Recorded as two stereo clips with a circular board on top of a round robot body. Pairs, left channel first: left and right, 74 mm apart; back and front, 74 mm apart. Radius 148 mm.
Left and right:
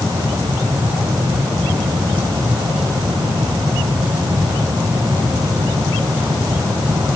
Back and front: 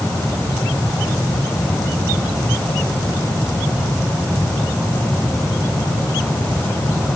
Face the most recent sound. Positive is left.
No sound to turn to.